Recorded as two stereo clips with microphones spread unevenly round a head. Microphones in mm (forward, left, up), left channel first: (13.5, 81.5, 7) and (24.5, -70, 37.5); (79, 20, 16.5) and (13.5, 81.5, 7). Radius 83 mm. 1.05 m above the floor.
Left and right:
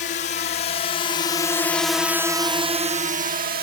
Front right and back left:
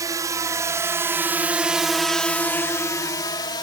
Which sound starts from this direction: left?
A drone, at 0.0 s.